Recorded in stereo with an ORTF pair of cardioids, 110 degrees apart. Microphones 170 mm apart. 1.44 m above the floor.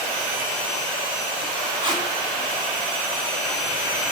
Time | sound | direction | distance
1.8 | tape being pulled | 30° right | 4 m